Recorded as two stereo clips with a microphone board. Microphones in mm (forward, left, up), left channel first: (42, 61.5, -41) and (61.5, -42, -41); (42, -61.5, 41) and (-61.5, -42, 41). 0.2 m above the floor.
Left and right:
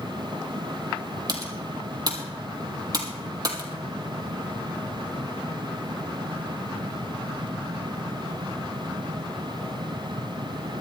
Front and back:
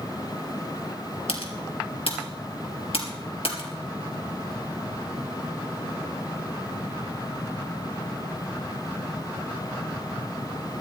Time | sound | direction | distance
1.3 | typing on a keyboard | 30° right | 2.5 m